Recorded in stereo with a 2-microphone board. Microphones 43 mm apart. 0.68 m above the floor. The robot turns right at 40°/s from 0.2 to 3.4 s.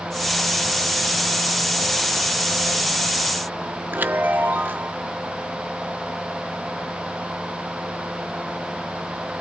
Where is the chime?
45° right (ahead or behind), 0.8 m.